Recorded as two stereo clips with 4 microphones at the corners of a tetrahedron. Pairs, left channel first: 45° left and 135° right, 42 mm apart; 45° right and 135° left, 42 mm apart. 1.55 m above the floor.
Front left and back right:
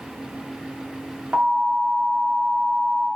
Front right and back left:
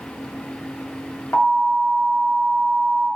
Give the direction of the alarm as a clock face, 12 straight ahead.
2 o'clock.